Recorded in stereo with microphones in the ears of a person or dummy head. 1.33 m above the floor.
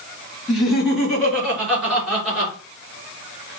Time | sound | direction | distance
0.5 | laughter | centre (ahead or behind) | 2.0 m